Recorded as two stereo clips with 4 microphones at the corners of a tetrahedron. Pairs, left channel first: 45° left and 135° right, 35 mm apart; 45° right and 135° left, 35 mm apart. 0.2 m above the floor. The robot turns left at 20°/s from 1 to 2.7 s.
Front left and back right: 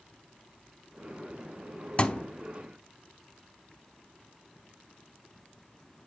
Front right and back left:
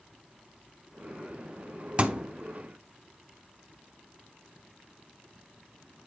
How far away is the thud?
About 0.5 m.